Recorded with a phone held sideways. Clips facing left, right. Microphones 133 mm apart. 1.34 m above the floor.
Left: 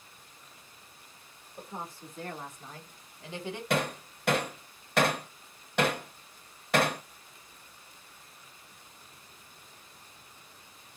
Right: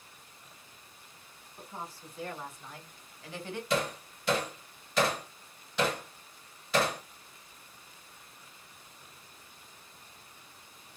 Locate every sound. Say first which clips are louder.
1.6 s a woman speaking: left 2 dB; 55° left (ahead or behind), 2.0 m; by 3.6 s 15° left (ahead or behind), 1.5 m
3.7 s hammering: left 1 dB; 60° left (ahead or behind), 0.8 m